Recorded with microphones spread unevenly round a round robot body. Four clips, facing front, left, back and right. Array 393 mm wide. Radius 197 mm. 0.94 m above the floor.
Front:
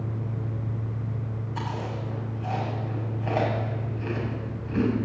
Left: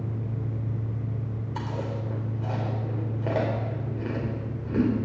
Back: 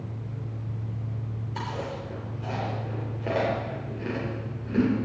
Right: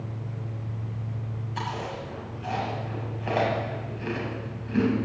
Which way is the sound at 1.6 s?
130° left.